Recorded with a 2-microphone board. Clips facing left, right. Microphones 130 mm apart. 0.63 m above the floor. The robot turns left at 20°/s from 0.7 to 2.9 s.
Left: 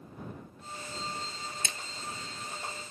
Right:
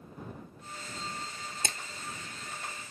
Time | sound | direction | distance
1.6 | a splash | 55° right (ahead or behind) | ?